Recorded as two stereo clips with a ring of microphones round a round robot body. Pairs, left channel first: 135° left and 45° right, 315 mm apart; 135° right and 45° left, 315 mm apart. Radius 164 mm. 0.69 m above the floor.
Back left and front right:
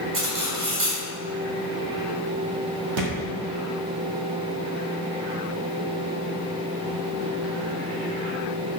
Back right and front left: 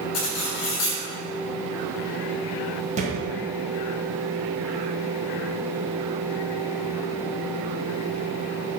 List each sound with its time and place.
0.1 s cutlery clinking: 95° right, 2.5 m
3.0 s a thud: 25° right, 2.0 m